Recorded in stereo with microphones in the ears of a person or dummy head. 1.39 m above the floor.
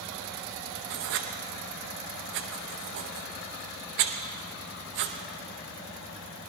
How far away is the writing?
About 0.7 m.